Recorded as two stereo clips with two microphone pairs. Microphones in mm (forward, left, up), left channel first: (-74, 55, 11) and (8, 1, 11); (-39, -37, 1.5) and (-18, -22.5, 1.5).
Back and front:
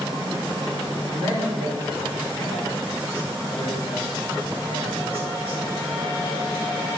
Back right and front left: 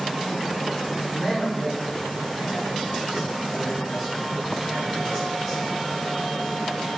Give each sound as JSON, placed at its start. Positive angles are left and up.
{"t": 1.1, "sound": "a man speaking", "azimuth_deg": -30, "distance_m": 3.5}